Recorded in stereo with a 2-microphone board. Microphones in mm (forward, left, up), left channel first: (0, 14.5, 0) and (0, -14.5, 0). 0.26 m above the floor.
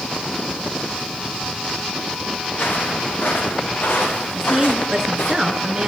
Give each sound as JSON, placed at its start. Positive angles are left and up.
{"t": 2.5, "sound": "footsteps", "side_deg": 75, "distance_m": 9.5}
{"t": 4.3, "sound": "a woman speaking", "side_deg": -15, "distance_m": 4.0}